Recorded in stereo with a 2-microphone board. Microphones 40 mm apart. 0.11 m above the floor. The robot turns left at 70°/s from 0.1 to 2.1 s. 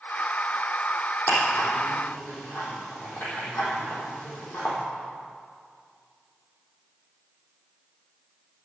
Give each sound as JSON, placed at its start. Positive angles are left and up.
{"t": 1.3, "sound": "ticking", "side_deg": 65, "distance_m": 4.5}